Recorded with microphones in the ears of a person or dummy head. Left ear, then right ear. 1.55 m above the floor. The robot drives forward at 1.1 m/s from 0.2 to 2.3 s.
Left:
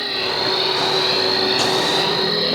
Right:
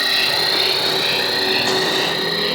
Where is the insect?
40° right (ahead or behind); by 2.5 s 25° right (ahead or behind).